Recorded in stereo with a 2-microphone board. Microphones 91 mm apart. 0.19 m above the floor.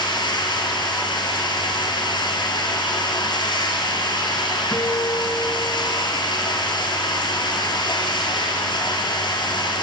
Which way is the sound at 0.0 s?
55° left (ahead or behind).